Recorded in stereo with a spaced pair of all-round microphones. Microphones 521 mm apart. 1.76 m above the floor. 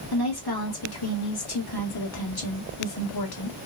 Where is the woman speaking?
45° left (ahead or behind), 1.1 m.